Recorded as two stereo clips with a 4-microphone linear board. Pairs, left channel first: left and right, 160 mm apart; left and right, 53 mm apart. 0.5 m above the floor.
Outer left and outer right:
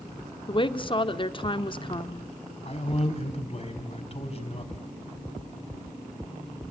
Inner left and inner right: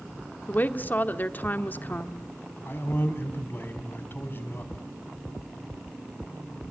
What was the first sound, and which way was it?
A woman speaking, 35° left (ahead or behind).